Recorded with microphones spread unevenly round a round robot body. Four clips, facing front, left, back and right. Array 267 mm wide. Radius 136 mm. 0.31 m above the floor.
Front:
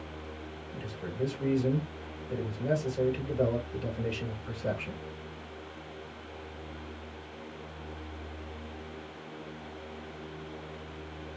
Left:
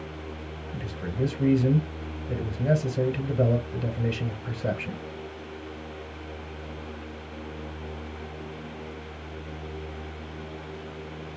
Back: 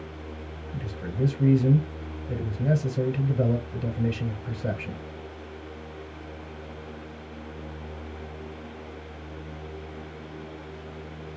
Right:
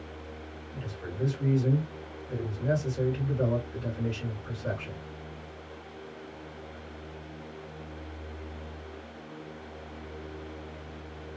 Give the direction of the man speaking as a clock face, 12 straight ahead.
8 o'clock.